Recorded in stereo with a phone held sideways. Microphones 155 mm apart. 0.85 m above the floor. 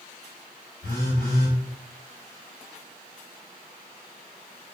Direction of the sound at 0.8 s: 55° right (ahead or behind).